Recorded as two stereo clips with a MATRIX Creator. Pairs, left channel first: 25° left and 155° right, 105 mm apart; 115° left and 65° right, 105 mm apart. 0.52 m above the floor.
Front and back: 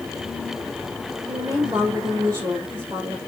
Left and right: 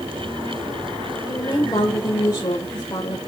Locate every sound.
1.3 s a woman speaking: 155° left, 2 m